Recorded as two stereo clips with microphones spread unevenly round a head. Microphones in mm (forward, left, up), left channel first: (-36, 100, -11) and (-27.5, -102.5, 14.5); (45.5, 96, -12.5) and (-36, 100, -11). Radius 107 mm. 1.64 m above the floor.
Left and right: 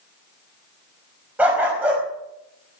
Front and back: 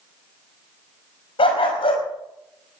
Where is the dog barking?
5° right, 5 m.